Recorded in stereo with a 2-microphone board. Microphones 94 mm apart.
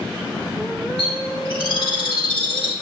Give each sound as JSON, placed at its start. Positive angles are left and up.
{"t": 1.0, "sound": "a bird", "side_deg": 60, "distance_m": 4.0}